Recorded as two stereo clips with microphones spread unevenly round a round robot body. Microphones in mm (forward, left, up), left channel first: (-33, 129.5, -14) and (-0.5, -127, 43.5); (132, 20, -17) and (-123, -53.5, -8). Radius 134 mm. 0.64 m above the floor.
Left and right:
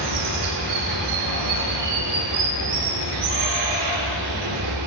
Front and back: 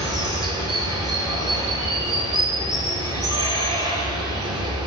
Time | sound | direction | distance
0.0 | running water | 90° right | 2.5 m